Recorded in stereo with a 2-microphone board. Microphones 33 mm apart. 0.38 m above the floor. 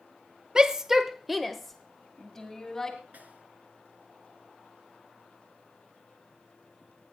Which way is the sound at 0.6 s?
25° right (ahead or behind).